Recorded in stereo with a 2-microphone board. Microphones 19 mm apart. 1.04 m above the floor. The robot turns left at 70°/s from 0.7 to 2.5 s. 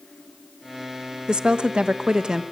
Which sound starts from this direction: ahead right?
A woman speaking, at 1.3 s.